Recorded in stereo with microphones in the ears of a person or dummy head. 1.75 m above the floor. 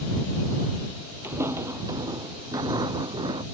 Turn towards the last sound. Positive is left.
turn(degrees=-30)  # may be behind; listen again after turning